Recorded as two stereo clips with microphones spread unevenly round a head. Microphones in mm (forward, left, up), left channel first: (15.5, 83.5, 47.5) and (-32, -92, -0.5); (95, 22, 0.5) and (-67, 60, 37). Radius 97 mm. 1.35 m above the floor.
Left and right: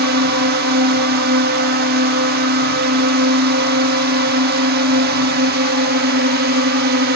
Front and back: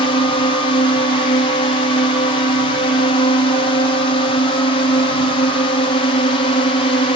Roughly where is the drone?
Right.